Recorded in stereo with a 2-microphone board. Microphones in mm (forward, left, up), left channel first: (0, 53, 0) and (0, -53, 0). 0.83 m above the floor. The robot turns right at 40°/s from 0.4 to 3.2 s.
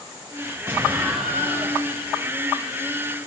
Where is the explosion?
20° right, 5.5 m; by 1.8 s 25° left, 5.5 m.